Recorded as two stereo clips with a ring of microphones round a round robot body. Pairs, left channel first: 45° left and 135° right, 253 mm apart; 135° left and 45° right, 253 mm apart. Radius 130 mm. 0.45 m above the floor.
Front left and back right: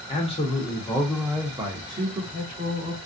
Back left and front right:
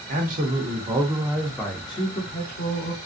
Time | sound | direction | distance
0.1 | a man speaking | 10° right | 1.0 m